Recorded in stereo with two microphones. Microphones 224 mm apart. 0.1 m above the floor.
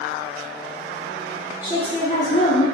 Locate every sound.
1.6 s a woman speaking: 20° left (ahead or behind), 1.1 m; by 2.6 s 40° left (ahead or behind), 1.5 m